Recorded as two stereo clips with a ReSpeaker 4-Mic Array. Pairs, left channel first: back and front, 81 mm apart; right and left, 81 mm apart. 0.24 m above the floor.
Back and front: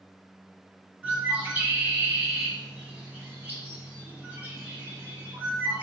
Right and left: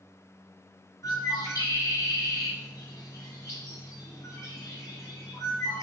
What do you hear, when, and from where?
1.0 s a bird: 65° right, 1.2 m